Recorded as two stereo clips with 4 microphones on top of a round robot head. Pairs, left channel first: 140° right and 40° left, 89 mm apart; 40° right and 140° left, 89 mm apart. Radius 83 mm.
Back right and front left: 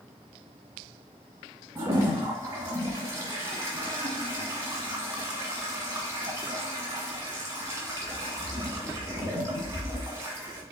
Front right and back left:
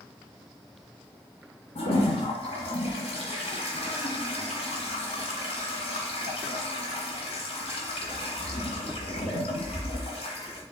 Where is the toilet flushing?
20° right, 1.9 m.